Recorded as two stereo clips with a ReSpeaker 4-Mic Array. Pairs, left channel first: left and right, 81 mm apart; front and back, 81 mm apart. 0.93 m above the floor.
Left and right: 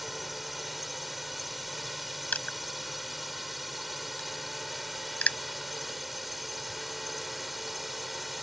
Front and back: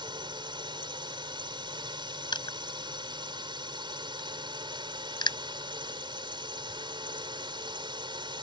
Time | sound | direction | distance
0.0 | a drone | straight behind | ?
2.3 | crushing | 20° left | ?